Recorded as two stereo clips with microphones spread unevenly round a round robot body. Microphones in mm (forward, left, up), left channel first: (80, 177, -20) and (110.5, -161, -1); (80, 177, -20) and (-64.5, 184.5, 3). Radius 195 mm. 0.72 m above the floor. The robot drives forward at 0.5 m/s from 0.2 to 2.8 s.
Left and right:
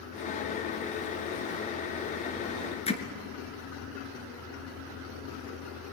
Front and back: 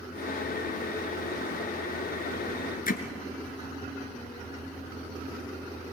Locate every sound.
2.9 s hammering: 20° left, 2.5 m